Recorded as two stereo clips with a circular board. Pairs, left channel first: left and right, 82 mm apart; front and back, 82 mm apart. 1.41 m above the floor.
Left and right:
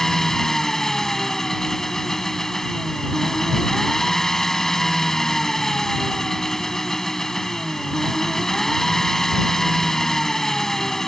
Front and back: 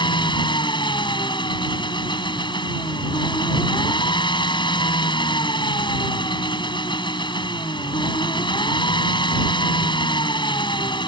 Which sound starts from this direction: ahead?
An engine running, at 0.0 s.